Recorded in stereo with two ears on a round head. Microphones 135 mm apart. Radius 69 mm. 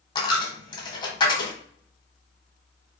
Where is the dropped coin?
30° left (ahead or behind), 0.9 m.